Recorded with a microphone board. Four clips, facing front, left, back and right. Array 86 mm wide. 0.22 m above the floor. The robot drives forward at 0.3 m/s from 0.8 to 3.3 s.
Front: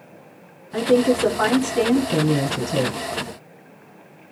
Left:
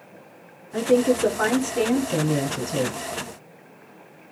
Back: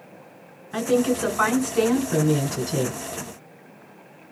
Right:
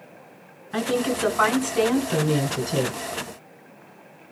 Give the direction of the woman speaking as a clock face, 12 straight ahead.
4 o'clock.